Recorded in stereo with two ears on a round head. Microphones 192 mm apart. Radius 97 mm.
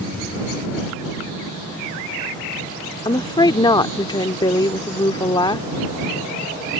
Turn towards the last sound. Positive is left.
turn(degrees=20)  # may be behind; listen again after turning